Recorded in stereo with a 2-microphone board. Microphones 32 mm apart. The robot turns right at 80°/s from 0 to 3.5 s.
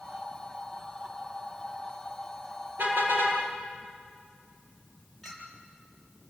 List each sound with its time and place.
2.8 s a car horn: 120° right, 8 m; by 3.4 s 75° right, 8 m
5.2 s a clink: 10° left (ahead or behind), 6.5 m